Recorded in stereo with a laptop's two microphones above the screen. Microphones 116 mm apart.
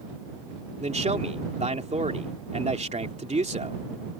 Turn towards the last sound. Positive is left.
turn(degrees=-80)